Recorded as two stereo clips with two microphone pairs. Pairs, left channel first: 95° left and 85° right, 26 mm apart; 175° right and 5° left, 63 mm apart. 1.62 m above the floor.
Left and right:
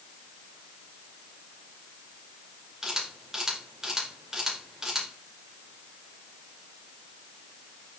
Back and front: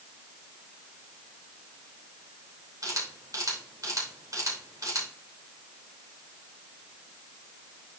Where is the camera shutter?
15° right, 3 m.